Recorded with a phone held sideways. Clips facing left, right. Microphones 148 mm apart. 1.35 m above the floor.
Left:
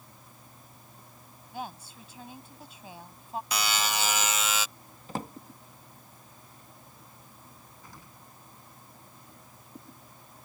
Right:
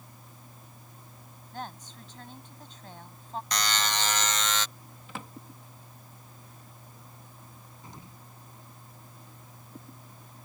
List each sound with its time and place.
1.5 s a woman speaking: 10° left (ahead or behind)
3.5 s a buzzer: 10° left (ahead or behind)
5.1 s a drawer: 40° left (ahead or behind)
7.8 s an explosion: 25° right (ahead or behind)